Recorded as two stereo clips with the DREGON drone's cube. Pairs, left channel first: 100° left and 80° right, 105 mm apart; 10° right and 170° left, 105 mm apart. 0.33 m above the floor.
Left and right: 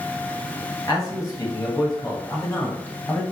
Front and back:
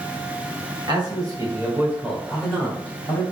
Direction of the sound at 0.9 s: 140° left.